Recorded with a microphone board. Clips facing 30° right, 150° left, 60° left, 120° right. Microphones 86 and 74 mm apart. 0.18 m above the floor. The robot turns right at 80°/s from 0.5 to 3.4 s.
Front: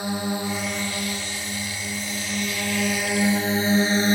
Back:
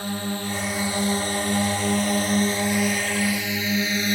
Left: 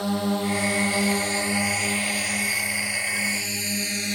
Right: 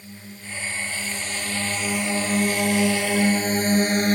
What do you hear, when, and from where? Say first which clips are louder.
0.0 s a drone: front 2 dB, left 17 dB; 45° left; by 4.2 s 80° right